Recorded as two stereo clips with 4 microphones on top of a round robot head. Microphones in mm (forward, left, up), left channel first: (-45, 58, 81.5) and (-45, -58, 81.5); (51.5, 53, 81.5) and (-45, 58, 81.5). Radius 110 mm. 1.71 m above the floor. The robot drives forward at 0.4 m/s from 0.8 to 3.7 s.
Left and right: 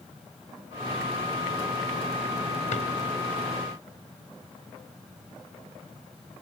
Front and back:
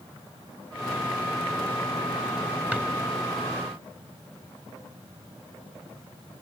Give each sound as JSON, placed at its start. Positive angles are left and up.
{"t": 2.7, "sound": "a drawer", "azimuth_deg": 105, "distance_m": 4.5}